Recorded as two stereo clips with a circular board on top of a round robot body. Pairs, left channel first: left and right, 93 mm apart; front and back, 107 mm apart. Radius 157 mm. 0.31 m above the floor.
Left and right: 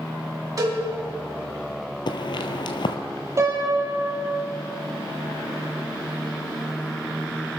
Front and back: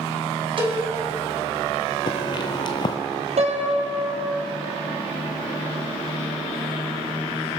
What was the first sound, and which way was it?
A cowbell, 140° right.